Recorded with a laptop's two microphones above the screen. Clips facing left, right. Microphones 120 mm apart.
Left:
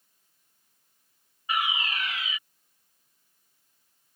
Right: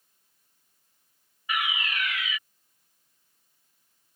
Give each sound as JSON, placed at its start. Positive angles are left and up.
{"t": 1.5, "sound": "a fire alarm", "side_deg": 30}